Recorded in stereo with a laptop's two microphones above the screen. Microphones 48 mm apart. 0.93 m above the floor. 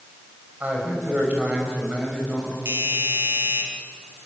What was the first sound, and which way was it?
A man speaking, 35° right (ahead or behind).